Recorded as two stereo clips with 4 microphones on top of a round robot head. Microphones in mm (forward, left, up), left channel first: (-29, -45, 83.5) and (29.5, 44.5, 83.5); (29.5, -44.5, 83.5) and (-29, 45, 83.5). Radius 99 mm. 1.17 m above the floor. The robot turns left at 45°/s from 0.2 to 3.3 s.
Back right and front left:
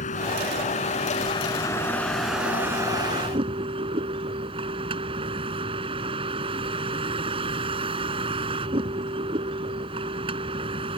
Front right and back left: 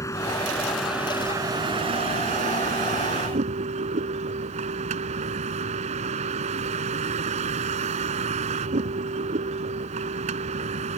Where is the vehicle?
120° right; by 11.0 s 100° left.